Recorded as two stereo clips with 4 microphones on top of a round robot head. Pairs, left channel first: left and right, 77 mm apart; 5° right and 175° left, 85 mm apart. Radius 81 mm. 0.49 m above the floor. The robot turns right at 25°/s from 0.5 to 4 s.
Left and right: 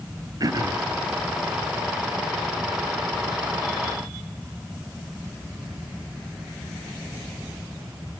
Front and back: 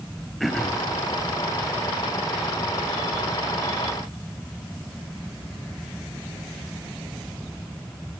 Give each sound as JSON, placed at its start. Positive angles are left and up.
{"t": 0.4, "sound": "throat clearing", "azimuth_deg": -95, "distance_m": 1.2}